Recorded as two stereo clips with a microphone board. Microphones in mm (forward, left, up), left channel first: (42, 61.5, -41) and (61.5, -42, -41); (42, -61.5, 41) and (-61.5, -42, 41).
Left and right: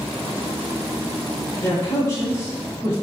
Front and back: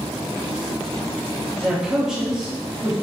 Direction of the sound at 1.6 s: 90° left.